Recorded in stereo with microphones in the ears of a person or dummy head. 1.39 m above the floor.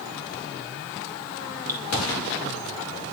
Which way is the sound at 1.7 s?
20° right (ahead or behind).